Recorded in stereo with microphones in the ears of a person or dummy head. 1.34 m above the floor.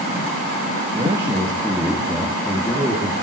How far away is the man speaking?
About 2 m.